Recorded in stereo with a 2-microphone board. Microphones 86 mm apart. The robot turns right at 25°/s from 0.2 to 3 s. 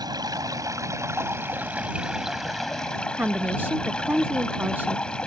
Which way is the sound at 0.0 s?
60° right.